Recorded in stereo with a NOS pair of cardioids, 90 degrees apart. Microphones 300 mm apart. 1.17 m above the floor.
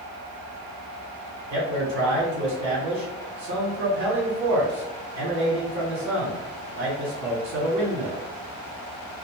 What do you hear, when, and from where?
1.5 s a man speaking: 65° right, 1.3 m